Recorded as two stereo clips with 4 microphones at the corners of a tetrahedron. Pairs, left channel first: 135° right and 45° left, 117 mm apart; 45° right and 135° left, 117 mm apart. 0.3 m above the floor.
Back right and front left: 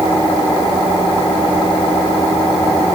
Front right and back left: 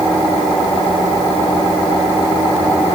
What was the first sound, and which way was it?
Only background noise.